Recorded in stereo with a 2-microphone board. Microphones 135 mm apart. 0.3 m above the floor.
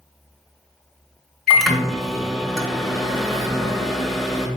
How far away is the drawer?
No drawer in this recording.